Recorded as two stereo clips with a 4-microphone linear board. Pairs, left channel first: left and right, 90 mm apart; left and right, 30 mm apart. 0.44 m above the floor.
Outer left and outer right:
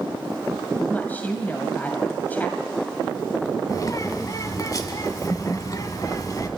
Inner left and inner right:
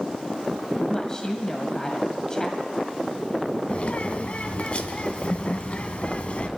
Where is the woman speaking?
20° left (ahead or behind), 2 m.